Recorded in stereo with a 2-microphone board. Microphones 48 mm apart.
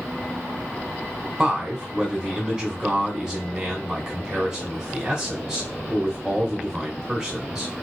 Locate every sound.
1.4 s a man speaking: 15° right (ahead or behind), 1.7 m